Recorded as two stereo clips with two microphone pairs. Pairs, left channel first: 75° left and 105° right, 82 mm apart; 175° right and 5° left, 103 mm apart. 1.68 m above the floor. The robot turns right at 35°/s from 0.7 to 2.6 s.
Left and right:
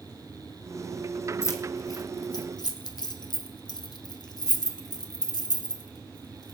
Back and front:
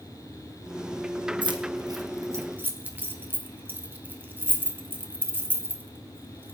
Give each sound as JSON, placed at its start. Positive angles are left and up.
{"t": 1.4, "sound": "keys jangling", "azimuth_deg": 30, "distance_m": 1.0}